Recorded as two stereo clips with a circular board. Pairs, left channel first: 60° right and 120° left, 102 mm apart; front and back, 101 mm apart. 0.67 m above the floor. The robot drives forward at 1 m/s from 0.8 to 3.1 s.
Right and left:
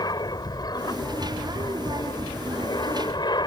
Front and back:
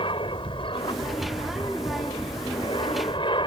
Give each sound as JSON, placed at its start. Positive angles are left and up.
{"t": 0.0, "sound": "an aircraft", "azimuth_deg": -20}